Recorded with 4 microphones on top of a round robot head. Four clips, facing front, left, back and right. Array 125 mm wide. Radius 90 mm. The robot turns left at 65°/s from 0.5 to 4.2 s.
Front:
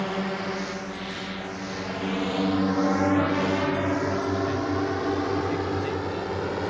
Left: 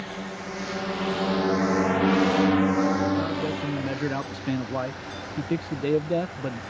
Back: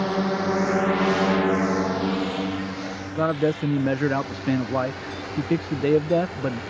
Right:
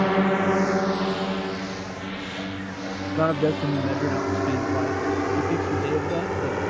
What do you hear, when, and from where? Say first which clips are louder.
0.0 s a drone: right 14 dB, back 5 dB; 110° right; by 6.7 s 60° right
3.1 s a man speaking: right 5 dB, back 1 dB; 125° right; by 6.6 s 170° left